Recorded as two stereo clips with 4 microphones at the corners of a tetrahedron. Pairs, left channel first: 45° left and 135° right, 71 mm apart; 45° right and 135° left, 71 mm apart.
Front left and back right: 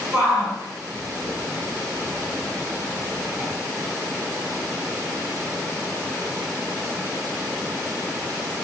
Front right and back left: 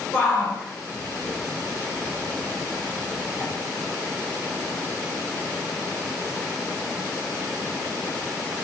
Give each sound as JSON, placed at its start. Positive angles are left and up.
{"t": 0.1, "sound": "a shout", "azimuth_deg": -110, "distance_m": 1.1}